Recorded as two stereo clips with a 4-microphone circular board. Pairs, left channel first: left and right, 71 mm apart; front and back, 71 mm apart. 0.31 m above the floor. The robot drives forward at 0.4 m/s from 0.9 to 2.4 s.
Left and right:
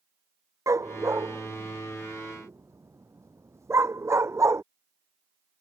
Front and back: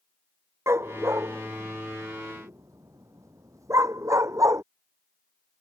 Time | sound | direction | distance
0.7 | a dog barking | 130° right | ?